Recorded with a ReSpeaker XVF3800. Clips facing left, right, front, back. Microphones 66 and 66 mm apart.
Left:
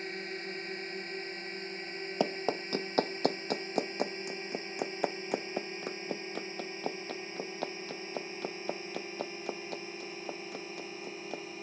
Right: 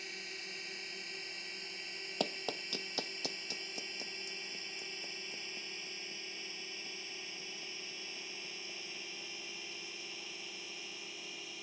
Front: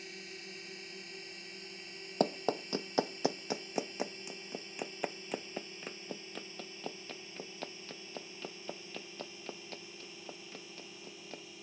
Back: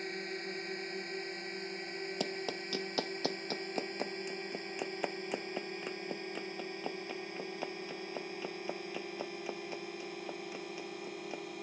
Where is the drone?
140° left; by 11.6 s 145° left.